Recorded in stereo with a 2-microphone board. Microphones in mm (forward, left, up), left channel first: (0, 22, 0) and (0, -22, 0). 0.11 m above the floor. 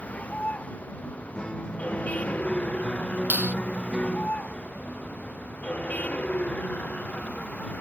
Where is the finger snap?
35° right (ahead or behind).